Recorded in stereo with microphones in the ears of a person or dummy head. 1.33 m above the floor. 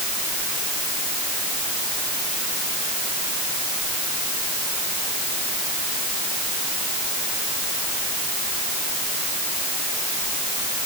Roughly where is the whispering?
I don't hear whispering.